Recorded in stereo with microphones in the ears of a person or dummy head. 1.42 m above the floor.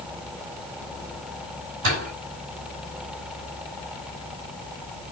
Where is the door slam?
70° right (ahead or behind), 6 m.